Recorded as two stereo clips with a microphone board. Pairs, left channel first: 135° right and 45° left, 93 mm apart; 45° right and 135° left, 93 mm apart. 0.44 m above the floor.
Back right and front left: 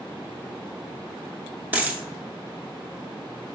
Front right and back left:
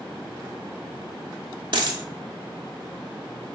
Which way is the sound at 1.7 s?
115° left.